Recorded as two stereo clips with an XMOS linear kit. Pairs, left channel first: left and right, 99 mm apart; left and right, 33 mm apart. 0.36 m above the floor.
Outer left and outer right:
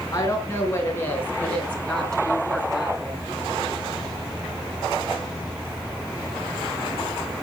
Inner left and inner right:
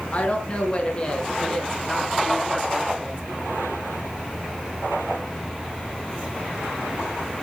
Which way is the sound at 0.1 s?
30° left (ahead or behind).